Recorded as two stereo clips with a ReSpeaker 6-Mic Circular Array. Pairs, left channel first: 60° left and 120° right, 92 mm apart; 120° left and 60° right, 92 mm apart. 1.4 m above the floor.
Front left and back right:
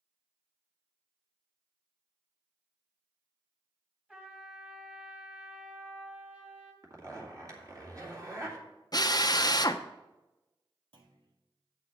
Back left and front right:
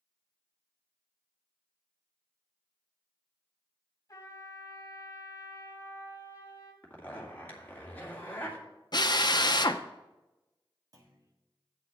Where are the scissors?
No scissors in this recording.